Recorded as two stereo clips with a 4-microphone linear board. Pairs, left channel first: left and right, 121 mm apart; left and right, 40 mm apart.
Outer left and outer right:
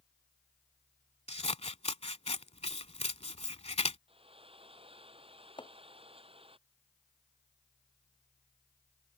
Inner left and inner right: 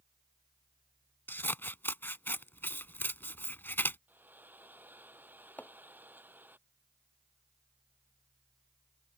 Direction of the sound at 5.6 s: 45° left (ahead or behind).